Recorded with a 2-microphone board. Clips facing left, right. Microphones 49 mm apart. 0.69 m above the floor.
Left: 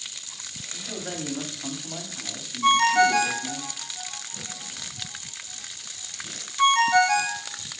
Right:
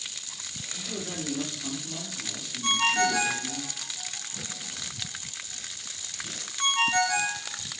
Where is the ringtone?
75° left (ahead or behind), 0.8 m.